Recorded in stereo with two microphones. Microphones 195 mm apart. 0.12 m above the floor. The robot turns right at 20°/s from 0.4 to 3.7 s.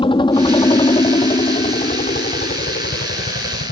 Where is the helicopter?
25° left (ahead or behind); by 3.7 s 65° left (ahead or behind).